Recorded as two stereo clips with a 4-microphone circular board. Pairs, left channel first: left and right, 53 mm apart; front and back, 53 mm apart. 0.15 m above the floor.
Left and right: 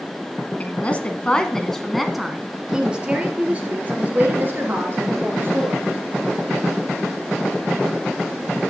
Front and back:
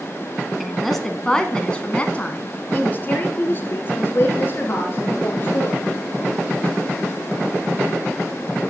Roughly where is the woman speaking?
Left.